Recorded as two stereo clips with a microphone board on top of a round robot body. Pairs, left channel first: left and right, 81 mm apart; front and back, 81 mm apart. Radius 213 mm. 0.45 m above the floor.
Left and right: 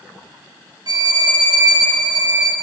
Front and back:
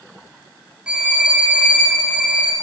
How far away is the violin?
About 1.7 m.